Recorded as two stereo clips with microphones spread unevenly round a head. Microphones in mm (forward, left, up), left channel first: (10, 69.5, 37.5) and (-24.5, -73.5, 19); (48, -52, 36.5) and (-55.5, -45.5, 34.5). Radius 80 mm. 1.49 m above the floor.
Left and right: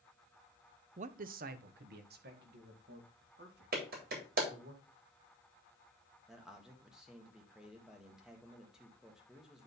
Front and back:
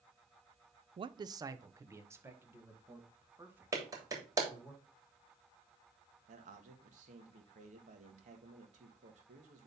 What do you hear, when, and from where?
1.0 s a man speaking: 145° right, 0.5 m; by 4.7 s 110° right, 4 m
3.7 s a clap: 125° right, 3 m
6.3 s a man speaking: 170° left, 1.8 m